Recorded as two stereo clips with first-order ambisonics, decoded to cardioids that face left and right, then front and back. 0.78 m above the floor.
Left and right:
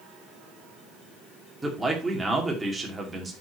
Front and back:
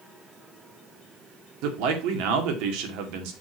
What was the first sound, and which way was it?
A man speaking, 175° right.